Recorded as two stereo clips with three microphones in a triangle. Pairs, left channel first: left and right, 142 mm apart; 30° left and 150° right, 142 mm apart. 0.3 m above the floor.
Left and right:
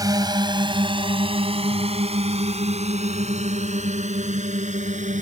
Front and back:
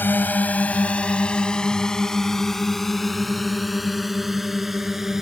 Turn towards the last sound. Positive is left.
turn(degrees=-60)